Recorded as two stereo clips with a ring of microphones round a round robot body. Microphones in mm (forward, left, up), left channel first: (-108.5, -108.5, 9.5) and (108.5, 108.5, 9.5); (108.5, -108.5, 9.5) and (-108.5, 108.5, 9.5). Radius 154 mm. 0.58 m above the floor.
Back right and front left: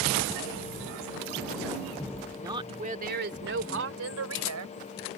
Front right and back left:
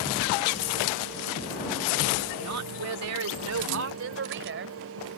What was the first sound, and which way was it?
A woman speaking, 125° left.